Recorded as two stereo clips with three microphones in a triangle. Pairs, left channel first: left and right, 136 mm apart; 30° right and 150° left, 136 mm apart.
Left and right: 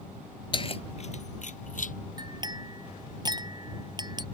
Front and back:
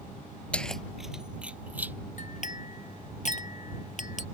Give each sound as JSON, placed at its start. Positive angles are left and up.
{"t": 0.5, "sound": "keys jangling", "azimuth_deg": 50}
{"t": 2.2, "sound": "a clink", "azimuth_deg": -35}